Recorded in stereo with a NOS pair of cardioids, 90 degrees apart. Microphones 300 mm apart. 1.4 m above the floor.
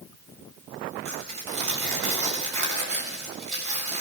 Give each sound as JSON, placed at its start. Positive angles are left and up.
{"t": 1.1, "sound": "tearing paper", "azimuth_deg": -70, "distance_m": 6.5}